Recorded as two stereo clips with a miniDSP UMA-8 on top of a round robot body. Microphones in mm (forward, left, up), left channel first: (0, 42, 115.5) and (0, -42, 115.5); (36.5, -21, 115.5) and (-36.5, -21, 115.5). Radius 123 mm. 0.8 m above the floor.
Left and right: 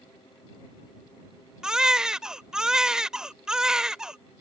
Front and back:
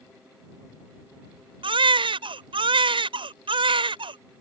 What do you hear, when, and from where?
1.6 s a baby crying: 175° right